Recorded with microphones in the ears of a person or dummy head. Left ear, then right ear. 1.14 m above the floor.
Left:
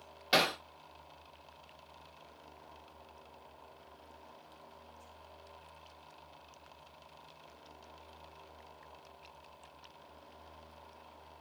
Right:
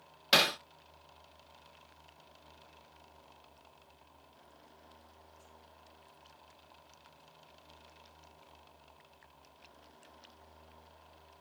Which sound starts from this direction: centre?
Hammering, at 0.3 s.